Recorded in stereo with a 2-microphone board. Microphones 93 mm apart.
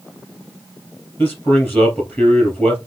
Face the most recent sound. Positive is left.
turn(degrees=20)  # may be behind; listen again after turning